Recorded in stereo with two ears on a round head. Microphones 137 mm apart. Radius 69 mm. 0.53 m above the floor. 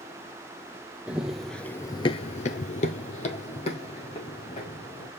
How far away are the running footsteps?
About 1.1 m.